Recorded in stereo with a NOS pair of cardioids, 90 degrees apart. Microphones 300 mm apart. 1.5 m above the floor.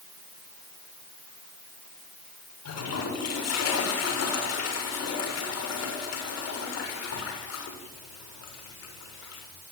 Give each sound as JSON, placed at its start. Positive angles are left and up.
{"t": 2.6, "sound": "a toilet flushing", "azimuth_deg": 55, "distance_m": 6.5}